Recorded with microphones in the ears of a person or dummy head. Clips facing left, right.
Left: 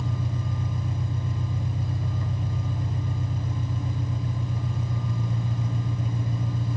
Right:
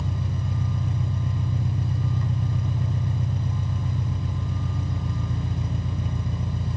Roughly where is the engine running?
Right.